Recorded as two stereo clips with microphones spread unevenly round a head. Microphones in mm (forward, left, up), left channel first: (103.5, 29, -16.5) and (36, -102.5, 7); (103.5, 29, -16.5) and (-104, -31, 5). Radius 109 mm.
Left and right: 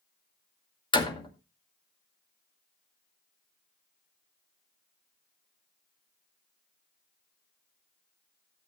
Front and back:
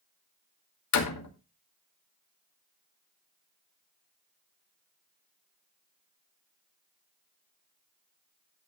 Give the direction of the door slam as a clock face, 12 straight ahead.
12 o'clock.